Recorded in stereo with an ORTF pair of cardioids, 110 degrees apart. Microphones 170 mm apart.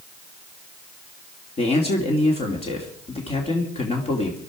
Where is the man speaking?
35° left, 2.5 m.